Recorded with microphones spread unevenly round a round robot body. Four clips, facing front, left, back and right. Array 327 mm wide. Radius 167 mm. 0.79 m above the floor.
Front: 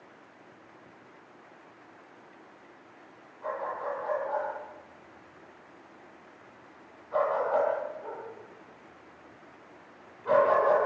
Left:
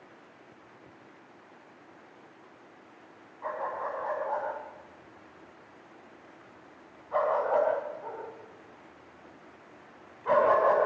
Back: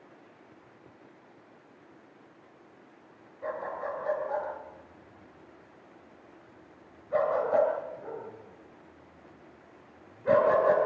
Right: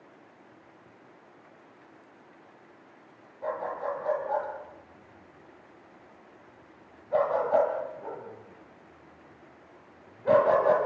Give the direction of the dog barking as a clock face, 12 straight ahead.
5 o'clock.